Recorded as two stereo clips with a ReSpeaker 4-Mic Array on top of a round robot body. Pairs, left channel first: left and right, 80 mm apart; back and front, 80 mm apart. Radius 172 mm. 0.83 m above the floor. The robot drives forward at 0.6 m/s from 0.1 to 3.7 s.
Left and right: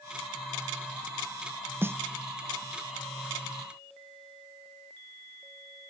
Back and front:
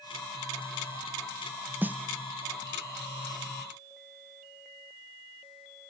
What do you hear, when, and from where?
1.8 s a snare drum: 50° right, 1.1 m; by 1.9 s 55° right, 1.1 m